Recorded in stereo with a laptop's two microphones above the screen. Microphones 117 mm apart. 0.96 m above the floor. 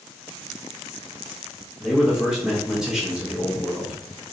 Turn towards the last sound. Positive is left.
turn(degrees=-5)  # may be behind; listen again after turning